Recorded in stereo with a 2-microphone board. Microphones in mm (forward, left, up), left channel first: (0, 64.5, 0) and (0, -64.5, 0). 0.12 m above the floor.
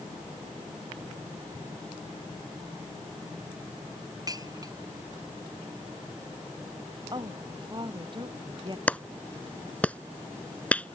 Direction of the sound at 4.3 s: 25° right (ahead or behind).